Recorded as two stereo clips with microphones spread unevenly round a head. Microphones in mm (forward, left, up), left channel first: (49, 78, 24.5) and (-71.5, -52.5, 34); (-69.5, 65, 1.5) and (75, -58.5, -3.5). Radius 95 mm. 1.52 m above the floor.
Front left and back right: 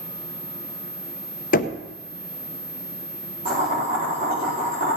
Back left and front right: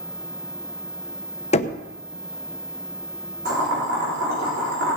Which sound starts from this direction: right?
Boiling, at 3.5 s.